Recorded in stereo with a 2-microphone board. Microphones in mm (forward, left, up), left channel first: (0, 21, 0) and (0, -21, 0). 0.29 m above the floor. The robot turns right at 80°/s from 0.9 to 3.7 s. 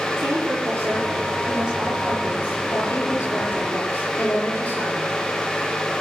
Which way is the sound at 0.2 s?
85° right.